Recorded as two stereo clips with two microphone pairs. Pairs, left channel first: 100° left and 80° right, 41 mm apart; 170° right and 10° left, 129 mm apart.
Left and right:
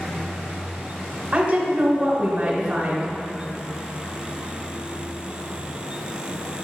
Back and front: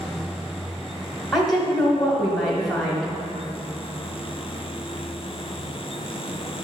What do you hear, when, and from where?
1.3 s a woman speaking: 80° right, 1.0 m